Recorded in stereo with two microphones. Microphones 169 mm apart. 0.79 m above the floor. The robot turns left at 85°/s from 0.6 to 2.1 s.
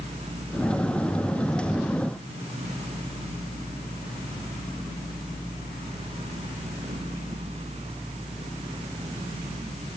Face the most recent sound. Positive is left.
No sound to turn to.